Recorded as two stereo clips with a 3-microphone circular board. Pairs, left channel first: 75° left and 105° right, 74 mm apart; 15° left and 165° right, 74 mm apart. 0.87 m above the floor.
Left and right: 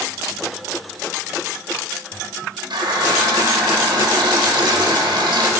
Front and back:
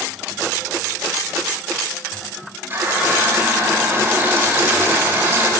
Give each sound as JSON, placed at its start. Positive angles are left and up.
{"t": 2.7, "sound": "a running tap", "azimuth_deg": -105, "distance_m": 1.1}